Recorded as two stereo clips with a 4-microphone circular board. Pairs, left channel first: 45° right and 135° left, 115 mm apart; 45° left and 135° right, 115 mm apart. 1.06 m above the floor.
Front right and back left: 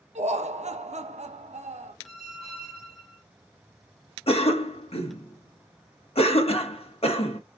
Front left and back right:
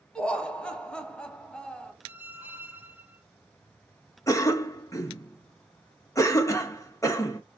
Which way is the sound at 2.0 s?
60° right.